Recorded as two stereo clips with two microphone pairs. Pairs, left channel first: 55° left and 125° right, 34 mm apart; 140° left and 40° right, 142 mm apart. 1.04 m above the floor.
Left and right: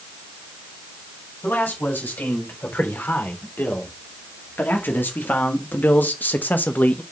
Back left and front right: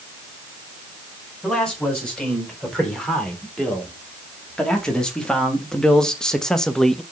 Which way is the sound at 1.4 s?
55° left.